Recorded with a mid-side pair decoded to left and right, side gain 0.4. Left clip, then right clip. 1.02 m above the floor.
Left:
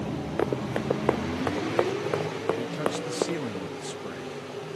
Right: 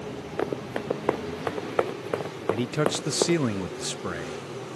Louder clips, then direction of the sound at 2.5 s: Right 6 dB; 65° right.